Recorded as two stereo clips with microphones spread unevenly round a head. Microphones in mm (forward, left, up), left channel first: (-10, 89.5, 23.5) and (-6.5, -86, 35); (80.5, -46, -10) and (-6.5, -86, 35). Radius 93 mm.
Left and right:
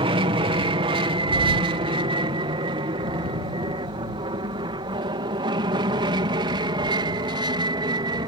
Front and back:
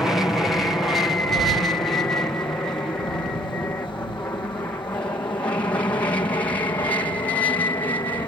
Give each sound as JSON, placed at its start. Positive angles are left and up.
{"t": 0.0, "sound": "an aircraft", "azimuth_deg": -40}